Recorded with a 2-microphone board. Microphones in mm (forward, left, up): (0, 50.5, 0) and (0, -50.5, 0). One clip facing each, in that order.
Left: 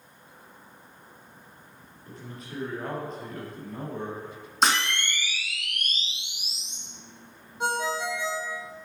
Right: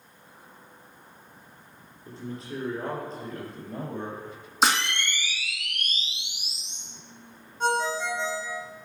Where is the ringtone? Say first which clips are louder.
Right 2 dB; 10° left (ahead or behind), 4 m.